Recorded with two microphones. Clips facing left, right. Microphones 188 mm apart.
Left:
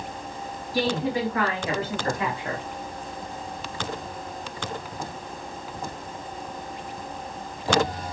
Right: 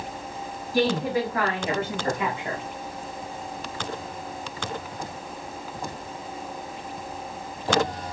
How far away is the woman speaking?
About 1.9 m.